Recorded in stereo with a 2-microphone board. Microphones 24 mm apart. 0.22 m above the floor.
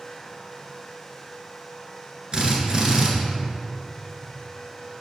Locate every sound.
2.3 s a drill: 35° right (ahead or behind), 1.6 m